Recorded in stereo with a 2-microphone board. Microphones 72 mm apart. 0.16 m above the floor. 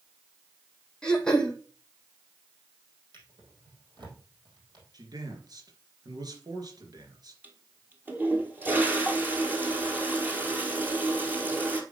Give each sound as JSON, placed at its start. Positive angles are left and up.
{"t": 1.0, "sound": "throat clearing", "side_deg": 10, "distance_m": 1.3}
{"t": 3.1, "sound": "a drawer", "side_deg": -70, "distance_m": 3.5}
{"t": 4.9, "sound": "a man speaking", "side_deg": -60, "distance_m": 2.5}
{"t": 7.4, "sound": "a toilet flushing", "side_deg": -25, "distance_m": 1.5}